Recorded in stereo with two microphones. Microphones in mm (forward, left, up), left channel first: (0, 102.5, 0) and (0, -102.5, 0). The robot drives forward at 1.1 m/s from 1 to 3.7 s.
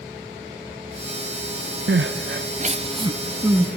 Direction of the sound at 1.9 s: 55° right (ahead or behind).